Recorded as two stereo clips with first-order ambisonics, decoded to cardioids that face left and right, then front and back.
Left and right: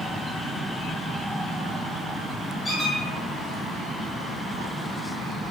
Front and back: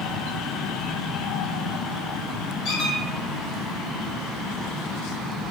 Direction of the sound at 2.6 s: 15° left.